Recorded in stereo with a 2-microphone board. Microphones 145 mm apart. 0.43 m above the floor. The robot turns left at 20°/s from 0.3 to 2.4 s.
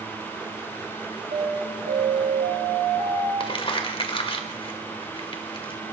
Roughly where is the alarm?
Right.